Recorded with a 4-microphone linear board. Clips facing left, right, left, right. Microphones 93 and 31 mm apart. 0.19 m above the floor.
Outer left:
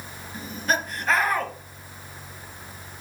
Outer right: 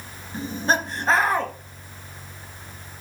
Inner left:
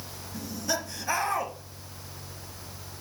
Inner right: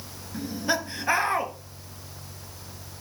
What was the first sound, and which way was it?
Laughter, 30° right (ahead or behind).